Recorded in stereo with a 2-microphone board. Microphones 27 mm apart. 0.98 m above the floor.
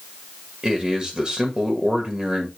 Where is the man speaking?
40° right (ahead or behind), 1.7 m.